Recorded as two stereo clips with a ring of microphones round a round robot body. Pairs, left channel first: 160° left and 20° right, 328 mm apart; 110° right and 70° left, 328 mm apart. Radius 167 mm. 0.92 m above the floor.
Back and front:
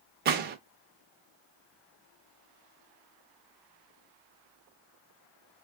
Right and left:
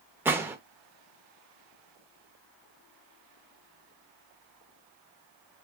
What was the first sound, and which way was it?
A gunshot, 10° right.